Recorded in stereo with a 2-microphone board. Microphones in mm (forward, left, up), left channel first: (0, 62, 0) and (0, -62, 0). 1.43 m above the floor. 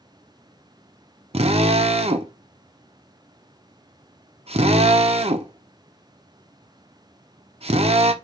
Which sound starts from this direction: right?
A drill, at 1.3 s.